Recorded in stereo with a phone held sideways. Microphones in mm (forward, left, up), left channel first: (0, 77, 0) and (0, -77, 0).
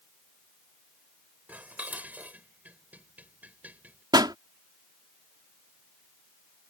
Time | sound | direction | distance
1.5 | dishes clattering | 10° right (ahead or behind) | ?
4.1 | a pop | 25° right (ahead or behind) | ?